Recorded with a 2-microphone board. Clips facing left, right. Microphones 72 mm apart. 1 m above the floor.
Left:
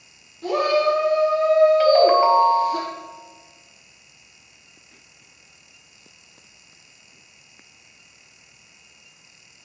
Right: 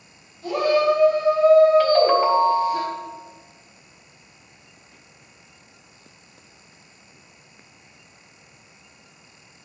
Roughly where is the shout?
Left.